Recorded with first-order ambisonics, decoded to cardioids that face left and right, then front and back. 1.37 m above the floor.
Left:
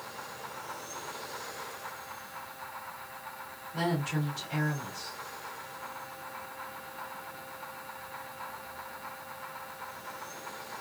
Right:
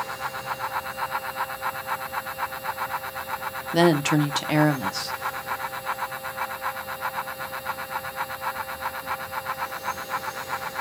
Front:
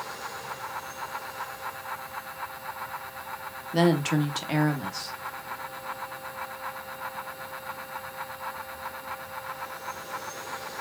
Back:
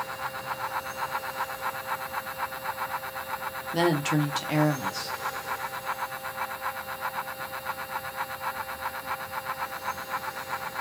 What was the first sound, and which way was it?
A woman speaking, 85° right.